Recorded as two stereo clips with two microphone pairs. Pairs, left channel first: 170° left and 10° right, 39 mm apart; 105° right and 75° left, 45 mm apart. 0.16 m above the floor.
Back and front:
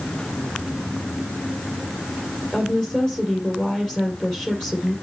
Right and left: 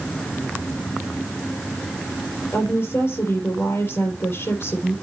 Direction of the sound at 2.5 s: 115° right.